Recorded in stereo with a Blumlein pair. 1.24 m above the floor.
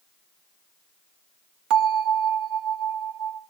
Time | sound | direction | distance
1.7 | a bell | 40° right | 2.0 m